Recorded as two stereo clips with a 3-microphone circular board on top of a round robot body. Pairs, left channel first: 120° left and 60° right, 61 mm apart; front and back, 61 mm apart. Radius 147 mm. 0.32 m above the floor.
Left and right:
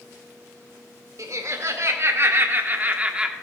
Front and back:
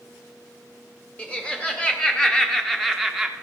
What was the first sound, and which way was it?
Laughter, 65° right.